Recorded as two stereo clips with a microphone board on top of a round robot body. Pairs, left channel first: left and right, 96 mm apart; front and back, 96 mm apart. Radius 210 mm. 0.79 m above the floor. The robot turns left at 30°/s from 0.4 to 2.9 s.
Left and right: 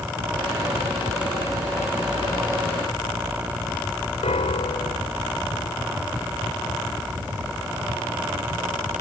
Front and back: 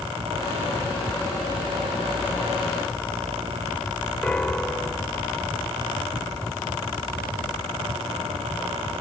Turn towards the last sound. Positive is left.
turn(degrees=80)